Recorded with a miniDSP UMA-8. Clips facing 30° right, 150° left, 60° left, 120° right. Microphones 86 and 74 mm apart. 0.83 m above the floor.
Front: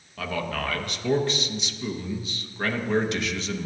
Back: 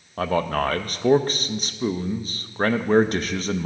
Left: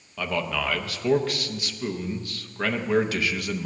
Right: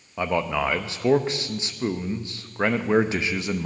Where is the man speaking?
Straight behind, 0.5 m.